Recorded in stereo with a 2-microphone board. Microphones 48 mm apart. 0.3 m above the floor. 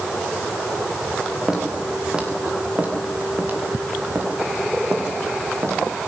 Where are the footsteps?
15° right (ahead or behind), 6 m; by 5.8 s 70° right (ahead or behind), 5.5 m.